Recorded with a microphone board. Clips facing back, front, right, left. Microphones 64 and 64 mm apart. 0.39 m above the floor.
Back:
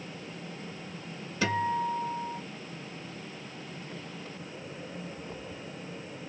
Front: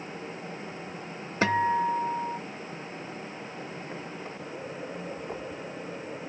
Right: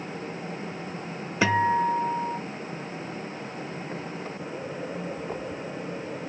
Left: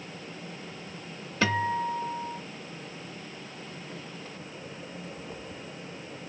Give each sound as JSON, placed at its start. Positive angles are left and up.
{"t": 1.4, "sound": "a guitar", "azimuth_deg": -25, "distance_m": 0.9}